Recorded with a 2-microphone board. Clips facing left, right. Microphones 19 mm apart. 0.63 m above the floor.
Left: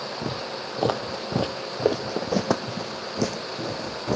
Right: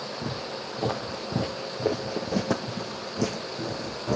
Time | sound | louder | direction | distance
0.2 | footsteps | left 2 dB | 60° left (ahead or behind) | 1.5 m